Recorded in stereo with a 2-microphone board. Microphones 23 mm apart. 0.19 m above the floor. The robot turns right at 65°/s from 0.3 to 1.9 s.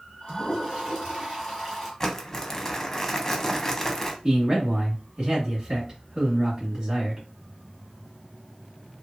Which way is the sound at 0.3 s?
40° right (ahead or behind).